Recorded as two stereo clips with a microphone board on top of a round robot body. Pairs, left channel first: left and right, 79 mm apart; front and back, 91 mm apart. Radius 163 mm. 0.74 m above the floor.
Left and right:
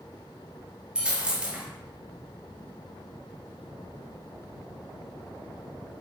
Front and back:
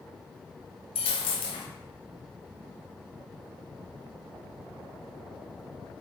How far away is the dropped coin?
About 1.5 m.